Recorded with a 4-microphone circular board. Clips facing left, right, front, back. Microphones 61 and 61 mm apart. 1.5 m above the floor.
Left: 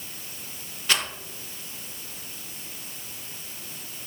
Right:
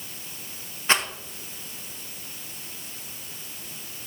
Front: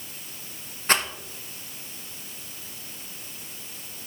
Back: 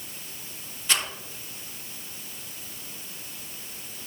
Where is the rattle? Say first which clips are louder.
Right 3 dB, front 5 dB; 35° right, 0.9 m.